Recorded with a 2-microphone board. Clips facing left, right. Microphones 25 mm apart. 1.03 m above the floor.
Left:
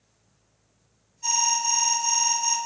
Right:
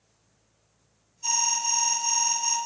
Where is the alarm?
40° left (ahead or behind), 3 m.